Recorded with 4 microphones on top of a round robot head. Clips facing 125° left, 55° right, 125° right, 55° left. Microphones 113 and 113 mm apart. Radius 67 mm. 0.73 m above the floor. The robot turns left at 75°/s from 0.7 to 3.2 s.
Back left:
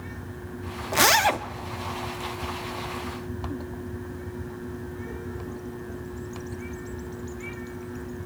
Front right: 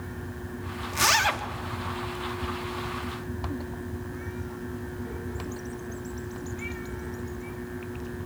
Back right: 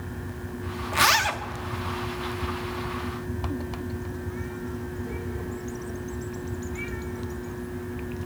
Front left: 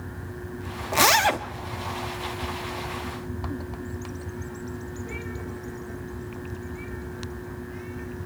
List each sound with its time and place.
0.9 s a zipper: 110° left, 0.6 m; by 1.4 s 75° left, 0.6 m